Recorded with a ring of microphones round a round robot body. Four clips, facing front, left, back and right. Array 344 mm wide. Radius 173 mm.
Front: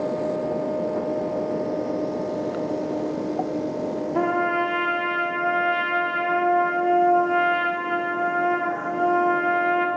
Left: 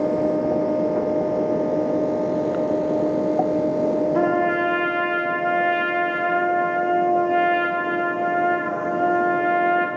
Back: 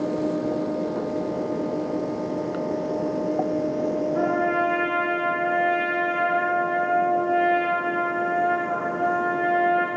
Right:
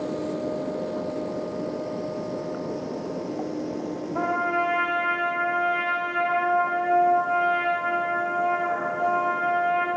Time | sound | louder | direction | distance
4.2 | a trumpet | left 5 dB, front 2 dB | 30° left | 0.6 m